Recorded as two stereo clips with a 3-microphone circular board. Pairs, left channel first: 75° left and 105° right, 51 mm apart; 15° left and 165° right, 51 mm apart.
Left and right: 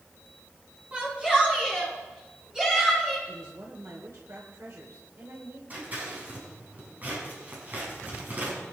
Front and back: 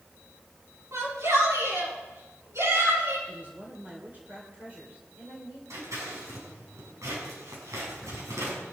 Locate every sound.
0.9 s a shout: 170° right, 8 m; by 3.2 s 175° left, 8.5 m
3.3 s a woman speaking: 110° right, 3 m
5.7 s scissors: 160° right, 6.5 m